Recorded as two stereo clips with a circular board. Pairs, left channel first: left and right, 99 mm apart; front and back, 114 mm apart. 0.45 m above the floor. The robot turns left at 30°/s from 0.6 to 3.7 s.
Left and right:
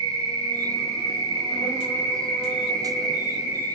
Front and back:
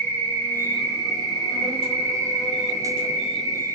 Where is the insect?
70° left, 0.9 m; by 3.8 s 20° right, 0.9 m.